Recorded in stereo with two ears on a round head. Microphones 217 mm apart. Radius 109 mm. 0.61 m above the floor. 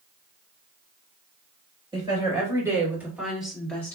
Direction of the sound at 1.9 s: 20° right (ahead or behind).